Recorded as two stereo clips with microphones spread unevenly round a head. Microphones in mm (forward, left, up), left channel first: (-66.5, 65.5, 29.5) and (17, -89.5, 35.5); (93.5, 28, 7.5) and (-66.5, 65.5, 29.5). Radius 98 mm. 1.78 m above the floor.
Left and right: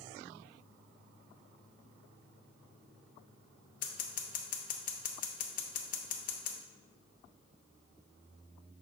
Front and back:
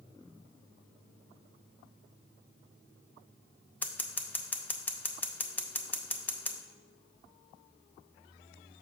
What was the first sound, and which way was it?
Scissors, 70° left.